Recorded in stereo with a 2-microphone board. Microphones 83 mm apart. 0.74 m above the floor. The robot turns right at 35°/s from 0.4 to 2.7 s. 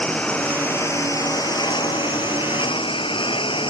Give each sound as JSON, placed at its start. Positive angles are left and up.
{"t": 0.0, "sound": "a lawn mower", "azimuth_deg": 15}